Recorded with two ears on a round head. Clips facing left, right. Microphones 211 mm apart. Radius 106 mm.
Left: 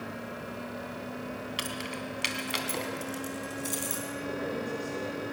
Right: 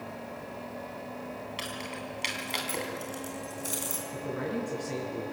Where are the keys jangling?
20° left (ahead or behind), 2.5 m; by 4.0 s 5° right (ahead or behind), 3 m.